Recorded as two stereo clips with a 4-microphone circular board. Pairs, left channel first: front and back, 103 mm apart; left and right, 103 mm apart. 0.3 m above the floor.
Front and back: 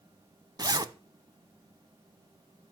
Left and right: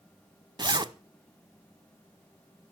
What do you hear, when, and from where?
0.6 s a zipper: 135° right, 0.6 m